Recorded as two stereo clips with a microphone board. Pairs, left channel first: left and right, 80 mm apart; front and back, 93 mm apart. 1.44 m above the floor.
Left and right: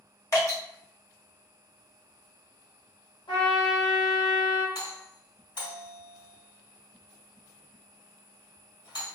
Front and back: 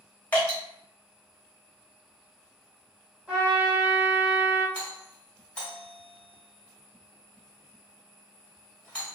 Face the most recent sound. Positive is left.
turn(degrees=75)